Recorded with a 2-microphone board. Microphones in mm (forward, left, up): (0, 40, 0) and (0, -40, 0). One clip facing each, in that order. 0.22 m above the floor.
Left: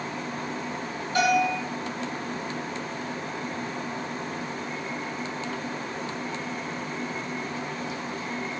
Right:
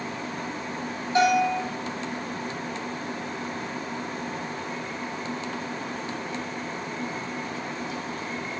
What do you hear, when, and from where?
1.1 s a bell: 25° right (ahead or behind), 1.8 m